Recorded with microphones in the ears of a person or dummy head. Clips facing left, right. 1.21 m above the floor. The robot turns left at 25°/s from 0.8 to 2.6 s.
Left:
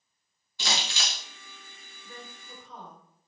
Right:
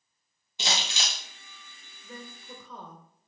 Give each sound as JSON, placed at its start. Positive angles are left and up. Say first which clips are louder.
{"t": 0.6, "sound": "crumpling", "louder": "even", "side_deg": -20, "distance_m": 0.7}
{"t": 2.0, "sound": "a woman speaking", "louder": "right 3 dB", "side_deg": -80, "distance_m": 1.3}